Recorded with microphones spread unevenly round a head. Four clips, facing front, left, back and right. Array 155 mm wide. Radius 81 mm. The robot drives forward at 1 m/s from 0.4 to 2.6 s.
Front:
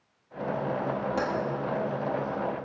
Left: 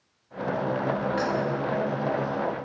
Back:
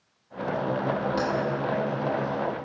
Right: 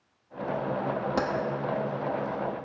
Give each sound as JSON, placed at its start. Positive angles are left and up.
{"t": 1.2, "sound": "keys jangling", "azimuth_deg": -85, "distance_m": 1.3}